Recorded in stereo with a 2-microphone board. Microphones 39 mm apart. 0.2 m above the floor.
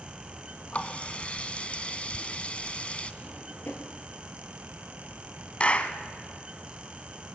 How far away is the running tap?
About 1.0 m.